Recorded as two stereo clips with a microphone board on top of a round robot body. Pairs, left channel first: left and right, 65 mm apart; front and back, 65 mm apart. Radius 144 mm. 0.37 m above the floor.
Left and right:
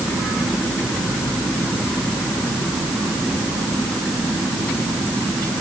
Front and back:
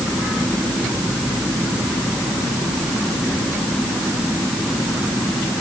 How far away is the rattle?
No rattle in this recording.